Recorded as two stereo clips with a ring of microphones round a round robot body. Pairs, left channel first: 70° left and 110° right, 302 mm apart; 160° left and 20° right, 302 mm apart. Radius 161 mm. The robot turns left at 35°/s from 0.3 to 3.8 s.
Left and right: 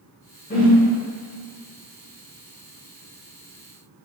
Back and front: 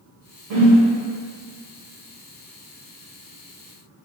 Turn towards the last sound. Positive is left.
turn(degrees=-110)